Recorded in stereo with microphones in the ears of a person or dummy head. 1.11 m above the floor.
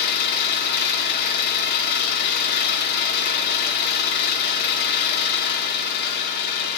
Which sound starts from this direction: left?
An engine running, at 0.0 s.